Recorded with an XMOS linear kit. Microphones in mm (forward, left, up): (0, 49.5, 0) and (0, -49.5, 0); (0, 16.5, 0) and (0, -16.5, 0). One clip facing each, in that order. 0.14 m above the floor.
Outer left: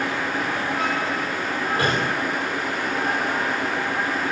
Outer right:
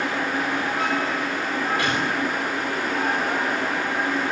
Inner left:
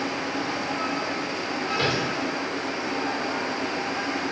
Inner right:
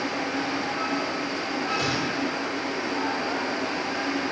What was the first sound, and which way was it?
A gunshot, 35° left (ahead or behind).